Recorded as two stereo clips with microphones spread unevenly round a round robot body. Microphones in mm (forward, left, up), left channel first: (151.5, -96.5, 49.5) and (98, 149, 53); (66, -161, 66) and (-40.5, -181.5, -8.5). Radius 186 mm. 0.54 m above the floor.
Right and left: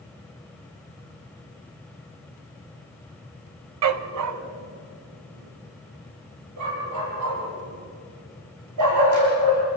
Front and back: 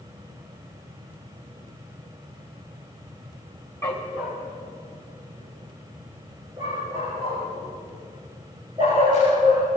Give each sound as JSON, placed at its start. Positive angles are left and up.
{"t": 3.8, "sound": "a dog barking", "azimuth_deg": 85, "distance_m": 0.9}